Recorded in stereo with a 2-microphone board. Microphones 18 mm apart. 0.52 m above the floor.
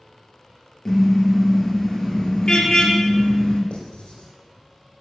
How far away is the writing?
About 6.5 m.